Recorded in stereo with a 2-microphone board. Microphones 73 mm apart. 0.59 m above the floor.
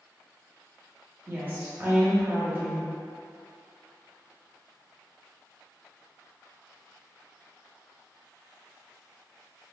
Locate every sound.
1.3 s a woman speaking: 25° right (ahead or behind), 1.1 m